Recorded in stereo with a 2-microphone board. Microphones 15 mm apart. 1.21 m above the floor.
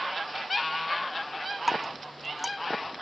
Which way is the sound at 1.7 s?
15° right (ahead or behind).